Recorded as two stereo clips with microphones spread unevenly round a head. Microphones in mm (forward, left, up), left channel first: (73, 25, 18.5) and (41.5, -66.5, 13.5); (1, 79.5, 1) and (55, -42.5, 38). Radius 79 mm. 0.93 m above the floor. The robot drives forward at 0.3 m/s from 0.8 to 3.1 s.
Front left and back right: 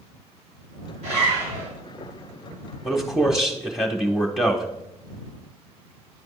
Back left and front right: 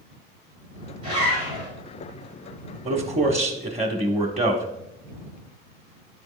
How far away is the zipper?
About 3 m.